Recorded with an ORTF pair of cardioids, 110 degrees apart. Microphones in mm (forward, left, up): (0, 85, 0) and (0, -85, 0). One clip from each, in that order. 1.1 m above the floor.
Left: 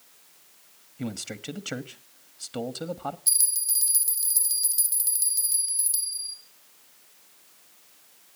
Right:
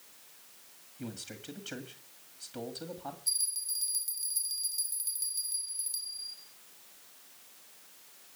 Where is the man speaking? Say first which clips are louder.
Left 8 dB; 55° left, 1.7 m.